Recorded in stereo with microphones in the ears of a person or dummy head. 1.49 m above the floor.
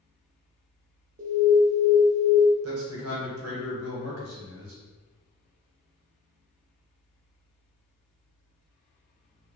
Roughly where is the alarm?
Right.